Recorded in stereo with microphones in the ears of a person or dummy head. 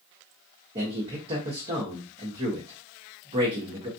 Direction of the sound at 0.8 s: 30° right (ahead or behind).